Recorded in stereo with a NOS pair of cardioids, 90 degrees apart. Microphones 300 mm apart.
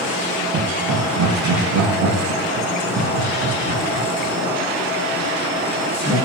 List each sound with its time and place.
0.5 s laughter: 70° right, 1.6 m